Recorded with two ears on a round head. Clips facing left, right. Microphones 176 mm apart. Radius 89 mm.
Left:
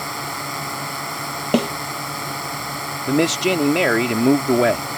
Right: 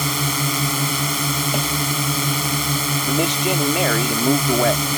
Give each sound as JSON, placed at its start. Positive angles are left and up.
{"t": 0.0, "sound": "a drone", "side_deg": -40}
{"t": 1.5, "sound": "a snare drum", "side_deg": 60}
{"t": 3.1, "sound": "a man speaking", "side_deg": 25}